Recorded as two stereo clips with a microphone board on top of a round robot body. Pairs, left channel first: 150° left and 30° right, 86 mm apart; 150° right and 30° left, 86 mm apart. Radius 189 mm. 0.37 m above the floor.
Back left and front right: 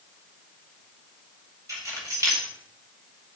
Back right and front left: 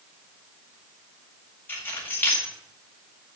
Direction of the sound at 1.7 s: 85° right.